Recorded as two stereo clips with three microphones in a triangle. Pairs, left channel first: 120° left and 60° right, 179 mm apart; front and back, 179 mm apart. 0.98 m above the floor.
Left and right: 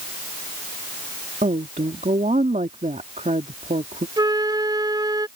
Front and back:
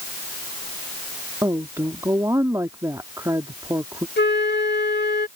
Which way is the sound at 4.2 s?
5° left.